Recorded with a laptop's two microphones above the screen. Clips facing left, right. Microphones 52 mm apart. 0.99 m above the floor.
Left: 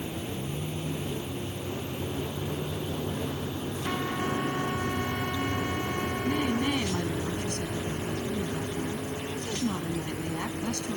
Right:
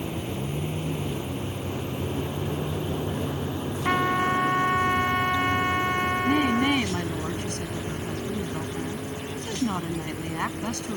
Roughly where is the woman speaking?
Right.